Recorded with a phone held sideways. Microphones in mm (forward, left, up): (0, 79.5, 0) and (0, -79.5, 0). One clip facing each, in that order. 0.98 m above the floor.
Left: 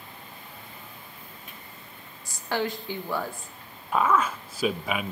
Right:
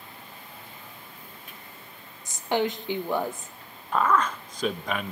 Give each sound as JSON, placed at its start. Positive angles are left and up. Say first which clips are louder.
{"t": 2.2, "sound": "a woman speaking", "louder": "right 3 dB", "side_deg": -20, "distance_m": 0.9}
{"t": 3.9, "sound": "a man speaking", "louder": "even", "side_deg": 10, "distance_m": 0.6}